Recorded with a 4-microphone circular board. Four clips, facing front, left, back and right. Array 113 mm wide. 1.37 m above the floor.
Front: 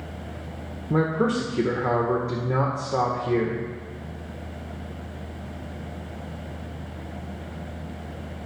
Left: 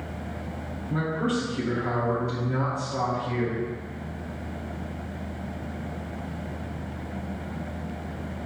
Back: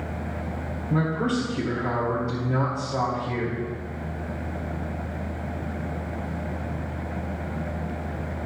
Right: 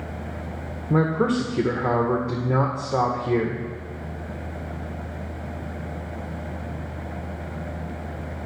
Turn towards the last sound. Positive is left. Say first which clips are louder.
# right 6 dB, front 2 dB
turn(degrees=-60)